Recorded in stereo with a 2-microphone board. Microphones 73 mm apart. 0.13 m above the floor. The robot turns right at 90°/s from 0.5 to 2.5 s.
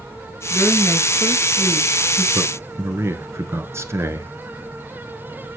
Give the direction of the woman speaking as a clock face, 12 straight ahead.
4 o'clock.